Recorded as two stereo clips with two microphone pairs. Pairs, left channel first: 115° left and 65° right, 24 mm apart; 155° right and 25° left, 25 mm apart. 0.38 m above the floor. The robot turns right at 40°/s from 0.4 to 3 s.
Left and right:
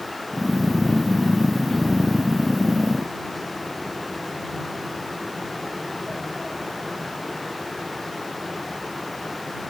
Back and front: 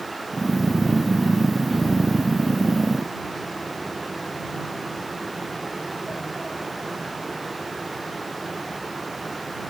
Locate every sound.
Only background noise.